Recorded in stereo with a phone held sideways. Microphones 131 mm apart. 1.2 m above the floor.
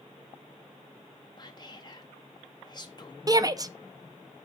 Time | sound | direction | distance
1.4 | whispering | 30° left (ahead or behind) | 0.6 m
3.3 | a shout | 30° right (ahead or behind) | 0.6 m